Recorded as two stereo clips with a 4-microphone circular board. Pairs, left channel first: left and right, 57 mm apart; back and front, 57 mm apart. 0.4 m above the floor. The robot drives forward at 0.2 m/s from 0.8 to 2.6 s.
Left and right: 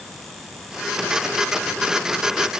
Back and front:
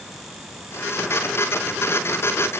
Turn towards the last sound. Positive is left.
No sound to turn to.